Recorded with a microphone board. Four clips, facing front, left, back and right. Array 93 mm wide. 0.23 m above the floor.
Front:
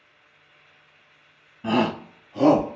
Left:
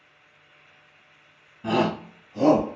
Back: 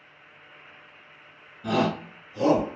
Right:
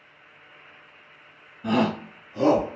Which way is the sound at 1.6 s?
15° left.